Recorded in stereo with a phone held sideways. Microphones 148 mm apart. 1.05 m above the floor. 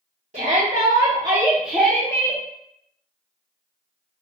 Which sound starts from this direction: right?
A shout, at 0.3 s.